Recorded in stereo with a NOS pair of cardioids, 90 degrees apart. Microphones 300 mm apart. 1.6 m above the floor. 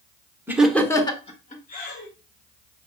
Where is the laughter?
5° right, 0.9 m; by 2.1 s 35° left, 1.6 m.